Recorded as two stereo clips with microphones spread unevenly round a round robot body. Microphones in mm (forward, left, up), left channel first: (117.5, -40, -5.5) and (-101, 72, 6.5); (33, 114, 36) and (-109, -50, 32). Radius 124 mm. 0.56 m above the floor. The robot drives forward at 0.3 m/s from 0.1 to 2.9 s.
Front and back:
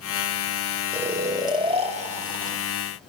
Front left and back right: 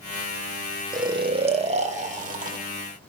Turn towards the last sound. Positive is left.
turn(degrees=-165)